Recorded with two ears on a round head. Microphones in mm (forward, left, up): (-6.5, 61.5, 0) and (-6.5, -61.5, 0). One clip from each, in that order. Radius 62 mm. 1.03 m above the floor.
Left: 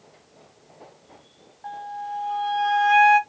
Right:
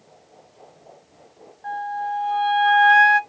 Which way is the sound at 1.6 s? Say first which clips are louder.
Right 6 dB; centre (ahead or behind).